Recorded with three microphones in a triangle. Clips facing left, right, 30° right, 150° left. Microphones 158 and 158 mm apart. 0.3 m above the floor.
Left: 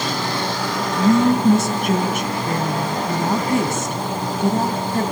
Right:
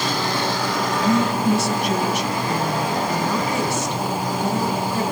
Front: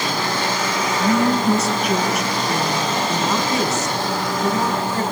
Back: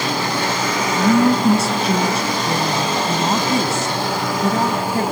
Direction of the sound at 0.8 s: 100° left.